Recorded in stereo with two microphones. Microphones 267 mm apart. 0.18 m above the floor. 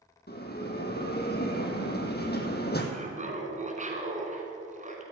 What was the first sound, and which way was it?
A bell, 40° left (ahead or behind).